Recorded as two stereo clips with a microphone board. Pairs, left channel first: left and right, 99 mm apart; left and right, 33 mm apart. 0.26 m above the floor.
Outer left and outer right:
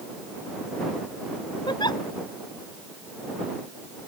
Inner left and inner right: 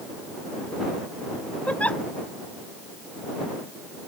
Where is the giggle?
50° left (ahead or behind).